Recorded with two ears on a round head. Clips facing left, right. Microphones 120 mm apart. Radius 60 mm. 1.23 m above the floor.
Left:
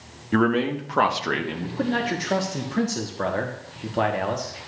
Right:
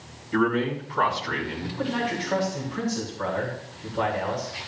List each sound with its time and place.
0.3 s a man speaking: 60° left (ahead or behind), 1.6 m
1.8 s a man speaking: 60° left (ahead or behind), 1.2 m